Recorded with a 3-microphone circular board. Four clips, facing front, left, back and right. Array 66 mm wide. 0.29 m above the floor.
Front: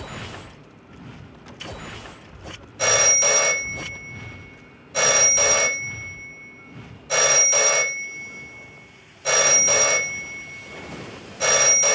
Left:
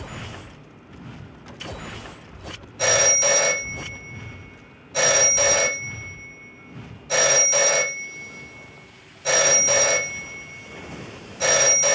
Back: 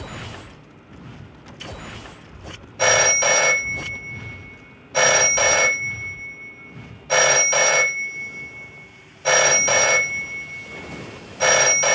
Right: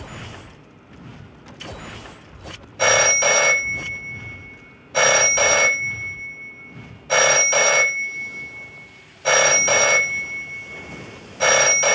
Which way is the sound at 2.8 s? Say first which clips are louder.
Right 4 dB, back 4 dB; 120° right.